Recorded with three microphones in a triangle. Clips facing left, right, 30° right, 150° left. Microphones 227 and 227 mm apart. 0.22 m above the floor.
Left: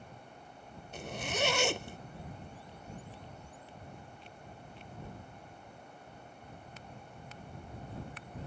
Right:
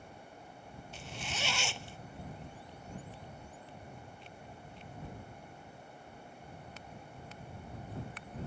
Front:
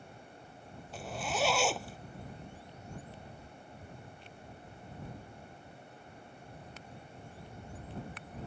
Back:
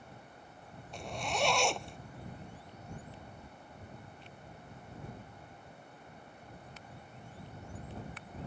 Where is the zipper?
55° left.